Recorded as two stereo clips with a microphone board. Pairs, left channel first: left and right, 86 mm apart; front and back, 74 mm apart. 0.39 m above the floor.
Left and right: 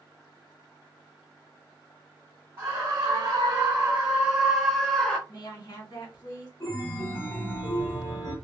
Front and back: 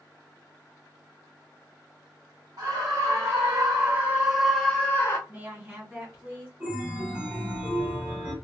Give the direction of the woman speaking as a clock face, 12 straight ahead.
8 o'clock.